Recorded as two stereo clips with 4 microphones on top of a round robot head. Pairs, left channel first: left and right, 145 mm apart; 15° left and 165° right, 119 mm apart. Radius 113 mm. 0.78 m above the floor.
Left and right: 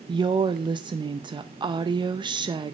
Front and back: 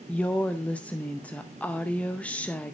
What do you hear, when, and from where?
0.1 s a woman speaking: 60° right, 0.7 m